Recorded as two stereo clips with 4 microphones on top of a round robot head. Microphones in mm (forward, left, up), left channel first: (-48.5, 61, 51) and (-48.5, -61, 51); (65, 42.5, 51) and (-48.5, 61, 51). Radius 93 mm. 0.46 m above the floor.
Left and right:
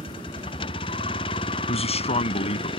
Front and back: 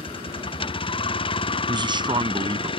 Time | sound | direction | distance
0.0 | a vehicle | 30° left | ?
1.7 | a man speaking | 125° left | ?